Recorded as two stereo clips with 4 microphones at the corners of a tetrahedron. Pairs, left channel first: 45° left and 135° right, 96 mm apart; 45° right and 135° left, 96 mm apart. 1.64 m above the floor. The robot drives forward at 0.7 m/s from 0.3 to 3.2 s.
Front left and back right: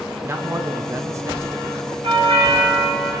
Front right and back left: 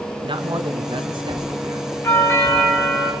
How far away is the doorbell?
About 7.5 m.